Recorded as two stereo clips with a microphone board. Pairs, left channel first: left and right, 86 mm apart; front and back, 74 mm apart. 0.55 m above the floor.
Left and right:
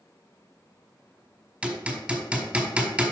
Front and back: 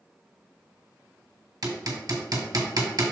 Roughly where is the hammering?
Behind.